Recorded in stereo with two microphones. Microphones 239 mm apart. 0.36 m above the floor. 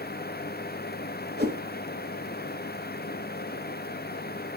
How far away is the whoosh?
About 1.8 m.